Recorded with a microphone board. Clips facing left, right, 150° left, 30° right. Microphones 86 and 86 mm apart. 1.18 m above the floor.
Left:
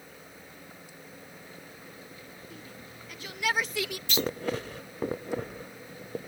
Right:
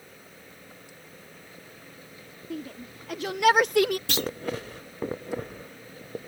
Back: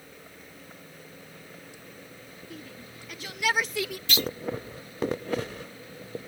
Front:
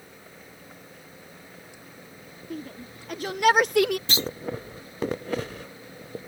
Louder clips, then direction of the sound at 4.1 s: Even, even; 90° right.